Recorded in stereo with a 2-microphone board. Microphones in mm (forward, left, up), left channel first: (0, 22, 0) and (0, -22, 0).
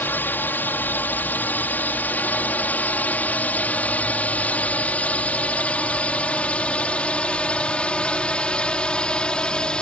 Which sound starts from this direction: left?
A drone, at 0.0 s.